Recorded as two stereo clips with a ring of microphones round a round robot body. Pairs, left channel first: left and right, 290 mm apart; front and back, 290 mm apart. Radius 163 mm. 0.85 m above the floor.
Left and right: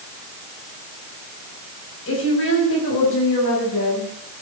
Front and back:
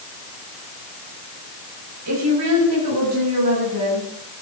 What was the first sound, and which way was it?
A woman speaking, 140° left.